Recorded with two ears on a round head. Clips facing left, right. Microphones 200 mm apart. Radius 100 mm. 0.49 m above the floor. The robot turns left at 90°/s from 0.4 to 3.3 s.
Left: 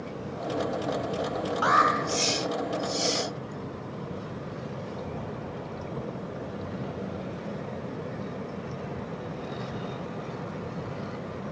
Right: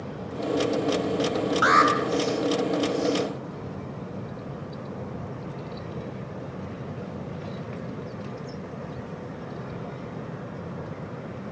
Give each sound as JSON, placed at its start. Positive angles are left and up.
{"t": 1.6, "sound": "an alarm", "side_deg": -20, "distance_m": 2.5}